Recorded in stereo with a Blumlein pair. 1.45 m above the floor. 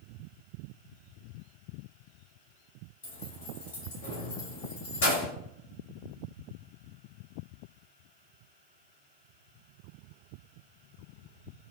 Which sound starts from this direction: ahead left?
Keys jangling, at 3.0 s.